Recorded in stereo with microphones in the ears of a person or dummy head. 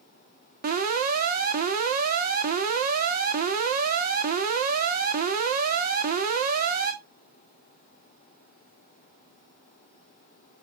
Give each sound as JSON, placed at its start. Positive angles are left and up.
{"t": 0.6, "sound": "an alarm", "side_deg": -45, "distance_m": 1.5}